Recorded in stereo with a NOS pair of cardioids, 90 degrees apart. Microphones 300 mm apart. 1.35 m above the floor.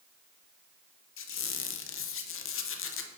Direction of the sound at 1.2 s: 45° left.